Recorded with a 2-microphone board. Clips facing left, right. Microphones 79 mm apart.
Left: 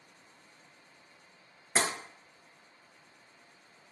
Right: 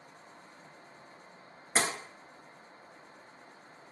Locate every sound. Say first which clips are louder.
1.8 s tapping: even; 5° left (ahead or behind), 1.5 m